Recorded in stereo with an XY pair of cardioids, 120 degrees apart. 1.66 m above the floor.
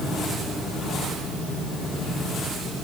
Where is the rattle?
No rattle in this recording.